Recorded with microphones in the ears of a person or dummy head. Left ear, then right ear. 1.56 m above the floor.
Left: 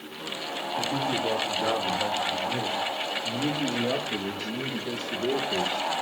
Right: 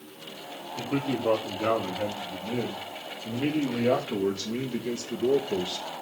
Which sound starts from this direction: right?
A man speaking, at 0.8 s.